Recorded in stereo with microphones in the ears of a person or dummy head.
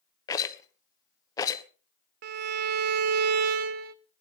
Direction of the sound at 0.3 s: 25° left (ahead or behind).